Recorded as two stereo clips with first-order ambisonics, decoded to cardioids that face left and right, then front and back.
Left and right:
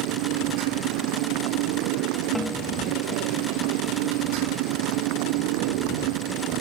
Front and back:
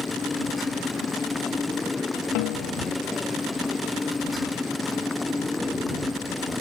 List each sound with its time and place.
0.0 s a motorcycle: 80° right; by 6.6 s 85° right
2.4 s a snare drum: straight ahead